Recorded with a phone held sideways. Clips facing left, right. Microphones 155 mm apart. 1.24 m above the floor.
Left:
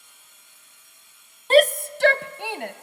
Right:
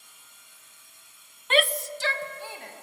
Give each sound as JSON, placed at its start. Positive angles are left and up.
{"t": 1.5, "sound": "a shout", "side_deg": 35, "distance_m": 0.5}